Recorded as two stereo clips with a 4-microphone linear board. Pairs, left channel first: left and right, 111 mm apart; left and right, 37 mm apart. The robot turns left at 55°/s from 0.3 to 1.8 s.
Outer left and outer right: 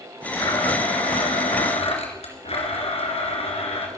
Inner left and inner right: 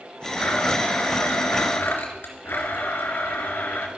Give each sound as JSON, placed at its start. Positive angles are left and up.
{"t": 0.4, "sound": "a blender", "azimuth_deg": 145, "distance_m": 3.5}